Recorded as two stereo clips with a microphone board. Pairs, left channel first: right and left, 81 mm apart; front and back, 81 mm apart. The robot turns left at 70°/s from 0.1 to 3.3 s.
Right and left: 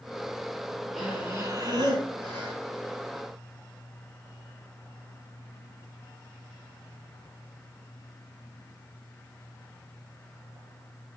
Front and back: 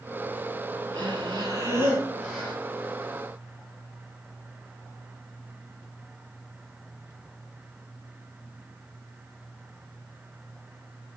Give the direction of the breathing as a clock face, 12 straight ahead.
6 o'clock.